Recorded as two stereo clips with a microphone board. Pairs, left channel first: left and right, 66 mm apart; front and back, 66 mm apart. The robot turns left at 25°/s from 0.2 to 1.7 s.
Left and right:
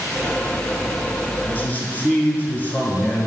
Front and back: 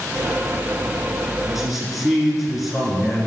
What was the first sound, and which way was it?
A man speaking, 105° left.